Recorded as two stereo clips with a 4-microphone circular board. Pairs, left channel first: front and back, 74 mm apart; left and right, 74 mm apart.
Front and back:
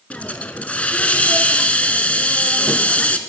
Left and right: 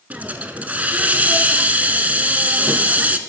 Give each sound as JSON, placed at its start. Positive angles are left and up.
{"t": 0.1, "sound": "a hiss", "azimuth_deg": -45, "distance_m": 0.7}